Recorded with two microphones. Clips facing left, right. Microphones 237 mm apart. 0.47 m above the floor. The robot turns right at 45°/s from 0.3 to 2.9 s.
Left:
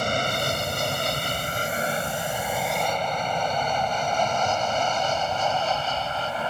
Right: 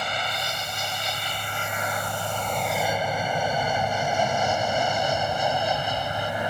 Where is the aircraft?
50° left (ahead or behind); by 6.5 s 15° right (ahead or behind).